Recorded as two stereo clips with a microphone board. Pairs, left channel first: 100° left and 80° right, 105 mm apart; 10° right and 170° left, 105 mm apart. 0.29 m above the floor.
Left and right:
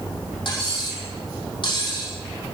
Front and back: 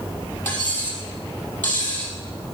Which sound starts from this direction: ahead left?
Cutlery clinking, at 0.5 s.